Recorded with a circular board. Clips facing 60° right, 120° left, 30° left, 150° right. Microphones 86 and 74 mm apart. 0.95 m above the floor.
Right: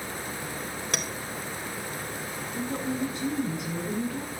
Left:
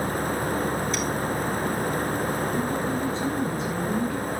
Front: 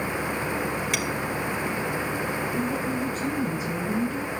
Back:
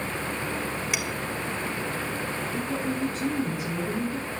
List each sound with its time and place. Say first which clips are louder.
0.9 s a clink: left 5 dB, front 2 dB; 65° right, 2.5 m
2.5 s a woman speaking: left 5 dB, front 2 dB; 145° right, 8.5 m